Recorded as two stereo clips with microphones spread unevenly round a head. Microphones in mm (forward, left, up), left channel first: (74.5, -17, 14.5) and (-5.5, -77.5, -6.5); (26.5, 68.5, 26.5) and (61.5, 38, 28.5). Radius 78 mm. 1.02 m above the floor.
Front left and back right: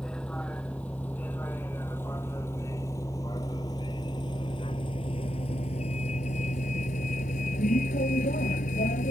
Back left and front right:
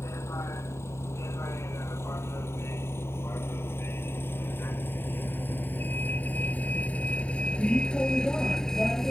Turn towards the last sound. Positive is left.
turn(degrees=60)